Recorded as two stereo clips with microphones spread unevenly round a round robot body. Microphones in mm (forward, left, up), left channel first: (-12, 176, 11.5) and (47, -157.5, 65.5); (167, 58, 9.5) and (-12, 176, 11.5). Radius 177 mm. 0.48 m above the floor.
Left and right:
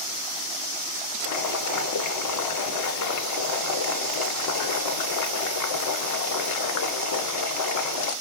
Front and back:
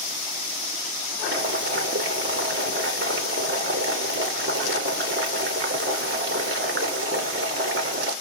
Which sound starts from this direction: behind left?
Boiling, at 1.2 s.